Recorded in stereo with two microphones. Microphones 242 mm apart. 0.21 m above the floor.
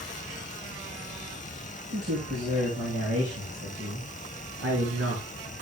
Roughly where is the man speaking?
Right.